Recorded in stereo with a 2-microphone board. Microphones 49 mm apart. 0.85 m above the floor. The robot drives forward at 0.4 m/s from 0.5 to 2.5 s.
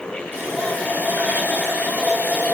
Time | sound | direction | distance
0.3 | a running tap | 45° right (ahead or behind) | 3.5 m